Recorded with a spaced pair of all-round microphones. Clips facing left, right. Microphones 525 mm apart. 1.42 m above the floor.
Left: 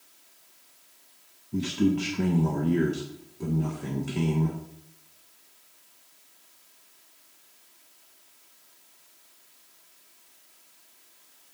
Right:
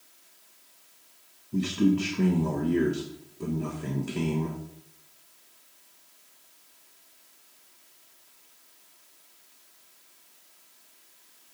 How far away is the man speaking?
About 1.2 m.